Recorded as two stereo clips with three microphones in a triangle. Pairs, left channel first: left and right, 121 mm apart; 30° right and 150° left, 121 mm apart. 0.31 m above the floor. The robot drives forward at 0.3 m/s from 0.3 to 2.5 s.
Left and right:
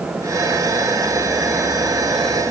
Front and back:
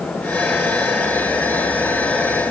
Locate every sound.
Only background noise.